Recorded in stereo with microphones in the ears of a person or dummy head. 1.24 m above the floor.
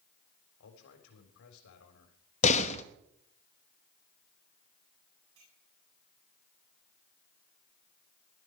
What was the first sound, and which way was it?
A man speaking, 70° left (ahead or behind).